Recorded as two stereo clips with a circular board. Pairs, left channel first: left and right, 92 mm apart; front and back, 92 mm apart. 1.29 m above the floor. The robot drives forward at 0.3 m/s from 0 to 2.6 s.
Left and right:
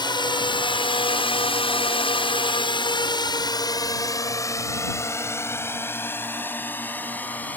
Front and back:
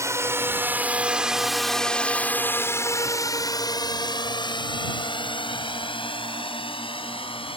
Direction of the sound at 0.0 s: 125° left.